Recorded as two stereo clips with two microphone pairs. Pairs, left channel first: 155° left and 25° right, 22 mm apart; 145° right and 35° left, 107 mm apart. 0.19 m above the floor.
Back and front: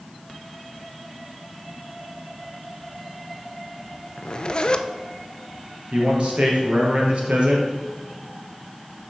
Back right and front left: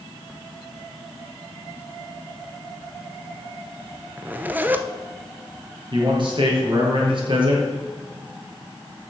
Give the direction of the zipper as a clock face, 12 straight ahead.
8 o'clock.